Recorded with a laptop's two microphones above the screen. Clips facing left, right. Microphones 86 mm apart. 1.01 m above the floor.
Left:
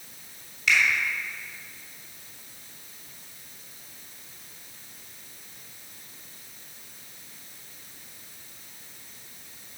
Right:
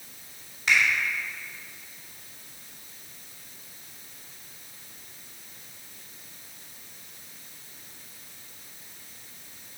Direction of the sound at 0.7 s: 40° right (ahead or behind).